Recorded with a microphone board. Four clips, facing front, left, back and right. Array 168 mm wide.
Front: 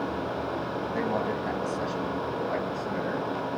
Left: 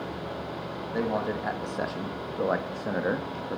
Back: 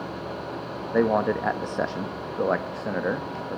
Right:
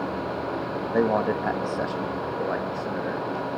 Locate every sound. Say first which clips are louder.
0.9 s a man speaking: right 6 dB, back 9 dB; 140° right, 1.2 m; by 3.6 s 135° left, 1.5 m